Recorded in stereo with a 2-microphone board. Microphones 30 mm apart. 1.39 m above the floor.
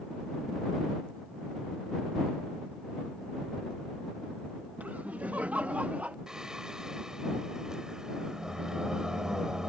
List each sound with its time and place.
4.8 s laughter: 60° right (ahead or behind); by 6.2 s 50° right (ahead or behind)
6.3 s singing: 20° right (ahead or behind)